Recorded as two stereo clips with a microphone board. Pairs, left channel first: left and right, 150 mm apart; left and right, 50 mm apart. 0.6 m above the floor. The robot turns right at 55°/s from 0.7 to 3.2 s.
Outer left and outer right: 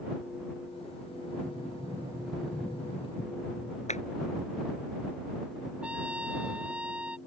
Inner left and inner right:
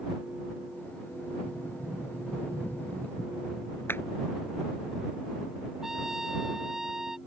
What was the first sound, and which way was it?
A sliding door, 55° right.